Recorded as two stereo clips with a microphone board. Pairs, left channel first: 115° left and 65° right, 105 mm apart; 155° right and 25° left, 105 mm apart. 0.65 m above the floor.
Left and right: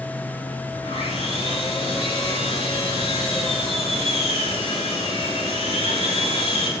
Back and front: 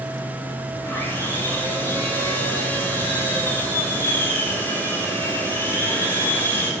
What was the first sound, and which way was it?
Sawing, 130° left.